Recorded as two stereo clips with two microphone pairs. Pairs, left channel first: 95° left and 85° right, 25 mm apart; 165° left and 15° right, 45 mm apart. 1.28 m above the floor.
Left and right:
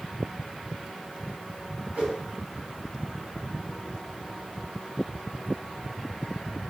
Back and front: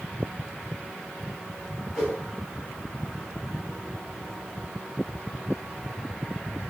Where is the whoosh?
90° right, 1.8 m.